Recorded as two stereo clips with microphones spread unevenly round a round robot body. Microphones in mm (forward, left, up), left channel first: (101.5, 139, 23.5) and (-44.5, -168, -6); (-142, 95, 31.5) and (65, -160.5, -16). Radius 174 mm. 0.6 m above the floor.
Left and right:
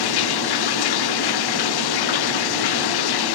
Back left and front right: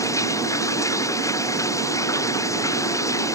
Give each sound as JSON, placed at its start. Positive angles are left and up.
{"t": 0.0, "sound": "running water", "azimuth_deg": 45}